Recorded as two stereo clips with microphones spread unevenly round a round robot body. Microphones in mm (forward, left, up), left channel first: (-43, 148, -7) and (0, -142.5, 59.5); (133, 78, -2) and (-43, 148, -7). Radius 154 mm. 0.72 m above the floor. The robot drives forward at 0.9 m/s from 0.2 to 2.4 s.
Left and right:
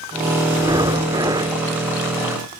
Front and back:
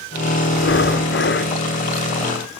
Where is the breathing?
5° right.